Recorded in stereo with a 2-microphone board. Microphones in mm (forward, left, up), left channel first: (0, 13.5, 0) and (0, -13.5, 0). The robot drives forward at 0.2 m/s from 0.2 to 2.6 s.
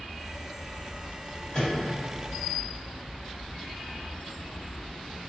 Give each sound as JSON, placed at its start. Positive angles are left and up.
{"t": 1.5, "sound": "a microwave", "side_deg": 40, "distance_m": 1.4}